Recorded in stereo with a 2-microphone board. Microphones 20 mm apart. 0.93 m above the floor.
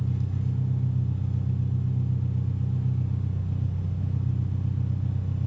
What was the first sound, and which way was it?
An engine running, 25° left (ahead or behind).